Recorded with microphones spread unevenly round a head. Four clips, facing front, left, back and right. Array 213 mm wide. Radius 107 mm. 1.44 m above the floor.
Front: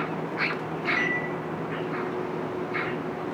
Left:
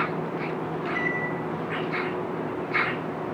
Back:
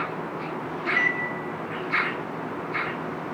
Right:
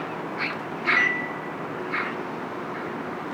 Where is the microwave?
30° left, 9 m.